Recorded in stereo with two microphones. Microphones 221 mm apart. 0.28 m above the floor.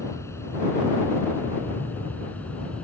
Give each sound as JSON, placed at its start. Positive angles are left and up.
{"t": 0.0, "sound": "an aircraft", "side_deg": 15}